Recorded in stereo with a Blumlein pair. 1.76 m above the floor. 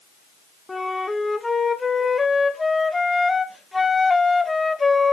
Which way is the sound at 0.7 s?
5° left.